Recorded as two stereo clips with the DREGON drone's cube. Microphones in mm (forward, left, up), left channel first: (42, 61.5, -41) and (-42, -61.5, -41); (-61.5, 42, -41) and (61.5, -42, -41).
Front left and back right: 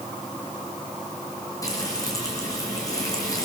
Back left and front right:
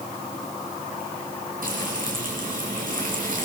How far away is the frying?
About 6.5 m.